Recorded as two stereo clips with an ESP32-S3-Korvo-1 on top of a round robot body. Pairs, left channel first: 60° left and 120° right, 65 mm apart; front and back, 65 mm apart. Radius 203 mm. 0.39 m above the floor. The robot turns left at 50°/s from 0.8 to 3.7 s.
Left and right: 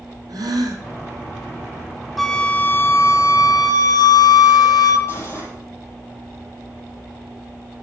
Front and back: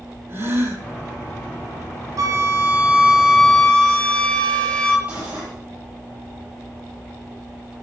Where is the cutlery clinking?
115° left, 9.5 m.